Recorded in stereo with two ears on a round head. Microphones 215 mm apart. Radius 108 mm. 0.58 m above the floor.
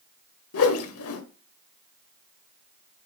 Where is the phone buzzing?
No phone buzzing in this recording.